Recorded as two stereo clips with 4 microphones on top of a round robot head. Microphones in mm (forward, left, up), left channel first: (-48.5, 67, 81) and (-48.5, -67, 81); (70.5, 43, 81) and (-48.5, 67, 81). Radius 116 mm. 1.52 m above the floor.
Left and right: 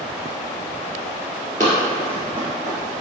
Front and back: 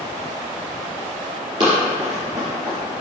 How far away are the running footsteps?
About 1.7 m.